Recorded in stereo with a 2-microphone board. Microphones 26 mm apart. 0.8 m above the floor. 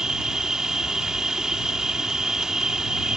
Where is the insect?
30° right (ahead or behind).